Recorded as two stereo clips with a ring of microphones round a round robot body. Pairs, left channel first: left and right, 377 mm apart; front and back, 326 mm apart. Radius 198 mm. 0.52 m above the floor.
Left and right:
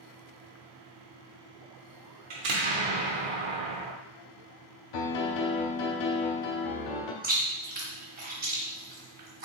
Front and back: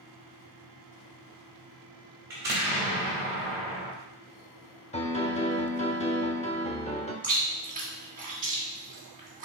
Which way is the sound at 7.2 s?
135° right.